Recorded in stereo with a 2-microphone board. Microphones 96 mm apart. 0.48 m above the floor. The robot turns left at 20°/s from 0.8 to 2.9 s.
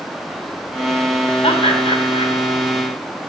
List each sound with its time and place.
1.4 s laughter: 60° left (ahead or behind), 3.5 m; by 2.3 s 70° left (ahead or behind), 3.5 m